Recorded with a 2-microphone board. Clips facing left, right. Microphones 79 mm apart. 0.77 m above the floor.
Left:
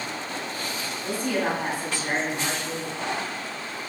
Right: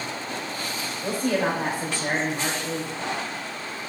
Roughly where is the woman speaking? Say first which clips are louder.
Right 2 dB; right.